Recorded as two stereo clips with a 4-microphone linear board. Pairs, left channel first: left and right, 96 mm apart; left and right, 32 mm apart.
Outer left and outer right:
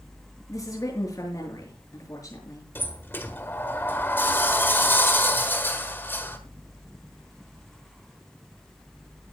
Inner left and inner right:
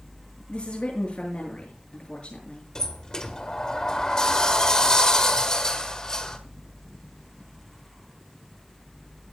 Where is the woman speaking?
35° left (ahead or behind), 7 m.